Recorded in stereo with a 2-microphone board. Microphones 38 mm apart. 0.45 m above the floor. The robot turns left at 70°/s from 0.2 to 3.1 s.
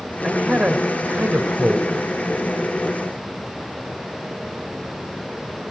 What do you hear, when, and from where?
0.2 s a man speaking: 15° right, 2.5 m; by 1.9 s 130° right, 2.5 m